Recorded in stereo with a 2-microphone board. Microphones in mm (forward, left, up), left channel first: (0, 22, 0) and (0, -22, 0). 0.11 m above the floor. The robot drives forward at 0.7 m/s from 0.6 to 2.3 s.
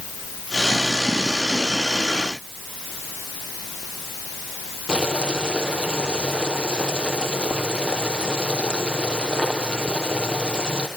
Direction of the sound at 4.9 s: 15° right (ahead or behind).